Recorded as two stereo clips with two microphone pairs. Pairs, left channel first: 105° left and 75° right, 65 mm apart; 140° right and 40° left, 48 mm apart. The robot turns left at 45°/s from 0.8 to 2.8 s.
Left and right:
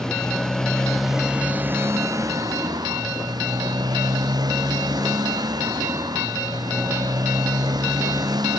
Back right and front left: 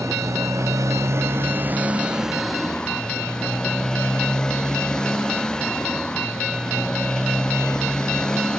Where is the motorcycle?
25° left; by 8.6 s 65° right.